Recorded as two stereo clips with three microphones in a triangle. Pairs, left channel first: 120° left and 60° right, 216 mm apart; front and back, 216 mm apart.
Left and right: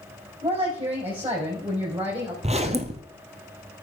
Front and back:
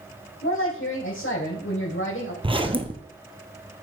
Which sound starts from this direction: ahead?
A woman speaking, at 0.4 s.